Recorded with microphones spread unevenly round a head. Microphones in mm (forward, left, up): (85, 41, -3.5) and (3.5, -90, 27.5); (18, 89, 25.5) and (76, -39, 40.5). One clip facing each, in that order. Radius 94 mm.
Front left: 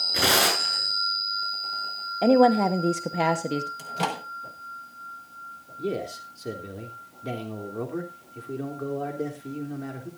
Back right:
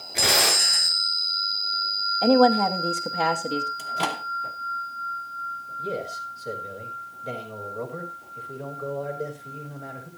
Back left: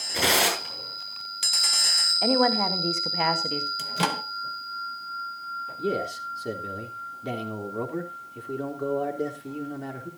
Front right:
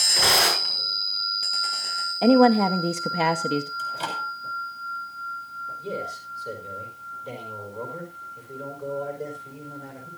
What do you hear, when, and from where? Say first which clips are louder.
0.1 s tearing paper: front left 2 dB, even; 60° left, 7.5 m
2.2 s a woman speaking: even, front right 7 dB; 5° right, 1.1 m
3.8 s a microwave: even, back left 3 dB; 145° left, 1.2 m
5.8 s a man speaking: front left 2 dB, back left 5 dB; 100° left, 3 m